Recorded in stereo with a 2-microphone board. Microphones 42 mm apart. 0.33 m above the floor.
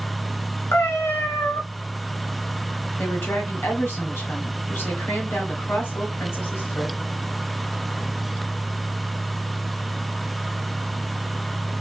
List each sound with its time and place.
0.7 s a cat meowing: 80° left, 0.9 m
3.0 s a woman speaking: 60° left (ahead or behind), 2 m